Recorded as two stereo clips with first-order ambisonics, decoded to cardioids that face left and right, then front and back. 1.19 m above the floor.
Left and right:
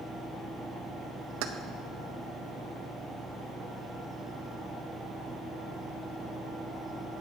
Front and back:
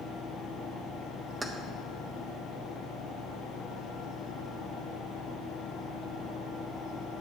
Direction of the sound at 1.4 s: 100° right.